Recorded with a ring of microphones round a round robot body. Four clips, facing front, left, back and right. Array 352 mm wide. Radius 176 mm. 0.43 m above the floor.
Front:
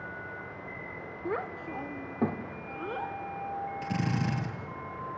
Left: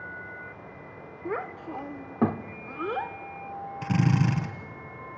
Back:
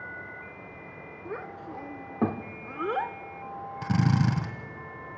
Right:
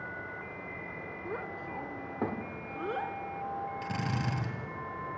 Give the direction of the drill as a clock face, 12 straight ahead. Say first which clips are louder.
Left 8 dB, back 8 dB; 7 o'clock.